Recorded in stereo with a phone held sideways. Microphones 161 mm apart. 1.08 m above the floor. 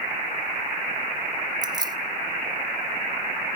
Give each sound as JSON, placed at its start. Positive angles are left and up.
{"t": 1.6, "sound": "keys jangling", "side_deg": -25, "distance_m": 1.1}